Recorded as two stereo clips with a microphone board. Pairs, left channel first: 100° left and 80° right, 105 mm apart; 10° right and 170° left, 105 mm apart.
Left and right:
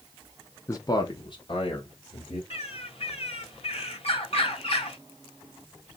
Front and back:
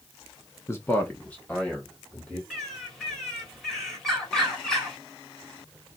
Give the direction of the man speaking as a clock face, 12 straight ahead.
10 o'clock.